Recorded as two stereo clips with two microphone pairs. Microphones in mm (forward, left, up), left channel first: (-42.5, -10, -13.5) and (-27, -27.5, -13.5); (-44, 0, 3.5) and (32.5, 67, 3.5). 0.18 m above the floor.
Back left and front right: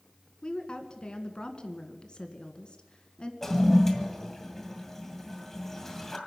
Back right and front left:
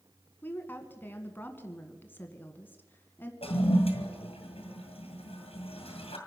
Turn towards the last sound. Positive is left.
turn(degrees=-145)